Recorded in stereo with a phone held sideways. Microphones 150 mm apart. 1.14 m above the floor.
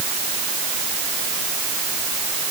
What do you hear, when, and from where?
Only background noise.